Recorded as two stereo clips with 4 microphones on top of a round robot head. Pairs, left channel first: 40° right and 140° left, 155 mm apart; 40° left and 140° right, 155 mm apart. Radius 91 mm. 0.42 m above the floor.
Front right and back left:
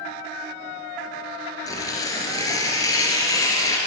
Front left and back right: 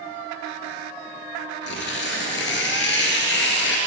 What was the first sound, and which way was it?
Tearing paper, 30° left.